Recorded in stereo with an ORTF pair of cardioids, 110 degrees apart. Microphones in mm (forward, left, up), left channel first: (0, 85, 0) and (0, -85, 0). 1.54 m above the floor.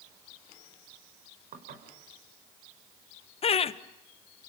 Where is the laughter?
35° left, 1.4 m.